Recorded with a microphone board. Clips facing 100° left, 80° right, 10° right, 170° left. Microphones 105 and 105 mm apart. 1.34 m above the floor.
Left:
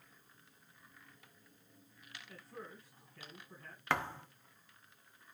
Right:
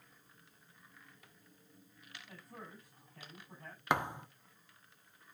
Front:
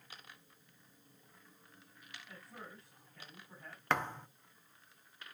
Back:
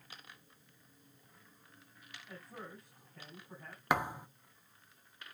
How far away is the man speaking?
About 9 m.